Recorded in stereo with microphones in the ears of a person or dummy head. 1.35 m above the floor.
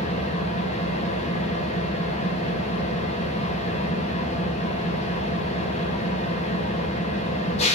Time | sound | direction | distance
0.0 | an engine running | 40° left (ahead or behind) | 1.8 m